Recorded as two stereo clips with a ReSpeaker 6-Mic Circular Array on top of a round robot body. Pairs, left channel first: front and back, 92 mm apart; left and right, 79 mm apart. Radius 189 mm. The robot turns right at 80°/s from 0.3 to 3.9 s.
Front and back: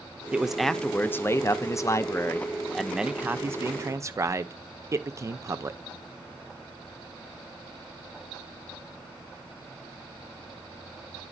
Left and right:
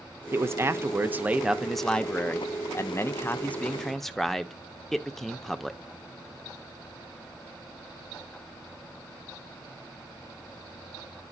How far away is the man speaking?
About 0.8 m.